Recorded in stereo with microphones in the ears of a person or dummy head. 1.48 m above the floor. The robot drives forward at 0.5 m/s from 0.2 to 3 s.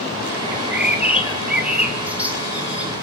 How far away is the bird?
About 1.5 m.